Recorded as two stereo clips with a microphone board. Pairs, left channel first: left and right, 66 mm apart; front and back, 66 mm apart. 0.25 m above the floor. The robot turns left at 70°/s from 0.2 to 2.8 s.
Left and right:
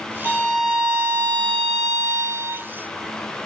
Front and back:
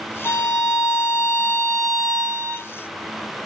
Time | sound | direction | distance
0.2 | a violin | 20° left | 2 m